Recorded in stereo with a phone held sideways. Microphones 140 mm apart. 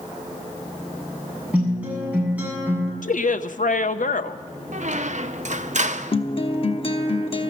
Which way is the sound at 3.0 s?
65° left (ahead or behind).